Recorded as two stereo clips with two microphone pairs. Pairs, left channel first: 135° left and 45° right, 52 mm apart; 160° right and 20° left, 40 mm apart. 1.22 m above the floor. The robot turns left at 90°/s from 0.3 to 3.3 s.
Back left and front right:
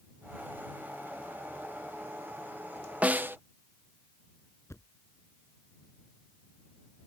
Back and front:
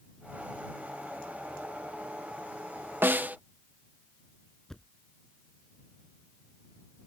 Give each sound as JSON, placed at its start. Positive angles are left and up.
{"t": 3.0, "sound": "a snare drum", "azimuth_deg": 10}
{"t": 4.7, "sound": "a thud", "azimuth_deg": 125}